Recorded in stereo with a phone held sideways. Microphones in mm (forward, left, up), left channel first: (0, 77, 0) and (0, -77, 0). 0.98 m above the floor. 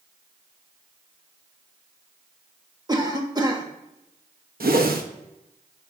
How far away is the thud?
No thud in this recording.